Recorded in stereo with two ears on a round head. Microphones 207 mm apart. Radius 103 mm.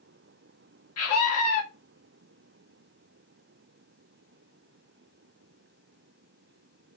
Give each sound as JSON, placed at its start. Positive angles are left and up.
{"t": 1.0, "sound": "a scream", "side_deg": 70, "distance_m": 1.6}